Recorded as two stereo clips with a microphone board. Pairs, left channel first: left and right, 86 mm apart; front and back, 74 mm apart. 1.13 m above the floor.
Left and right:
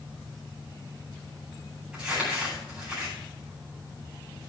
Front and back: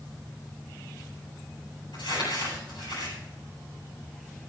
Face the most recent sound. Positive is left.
turn(degrees=-10)